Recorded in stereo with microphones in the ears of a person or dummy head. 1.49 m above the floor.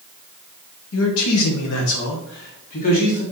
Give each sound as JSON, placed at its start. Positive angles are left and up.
{"t": 0.9, "sound": "a man speaking", "side_deg": 75, "distance_m": 1.3}